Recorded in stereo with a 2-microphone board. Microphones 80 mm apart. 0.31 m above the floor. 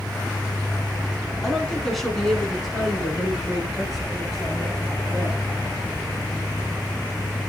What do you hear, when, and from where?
1.4 s a woman speaking: 5° left (ahead or behind), 3 m; by 5.5 s 5° right (ahead or behind), 7.5 m